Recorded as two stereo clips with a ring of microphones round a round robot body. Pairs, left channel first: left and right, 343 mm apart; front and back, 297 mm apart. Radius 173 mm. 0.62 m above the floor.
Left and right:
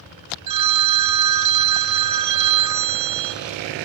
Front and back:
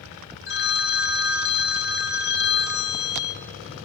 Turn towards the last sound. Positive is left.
turn(degrees=-55)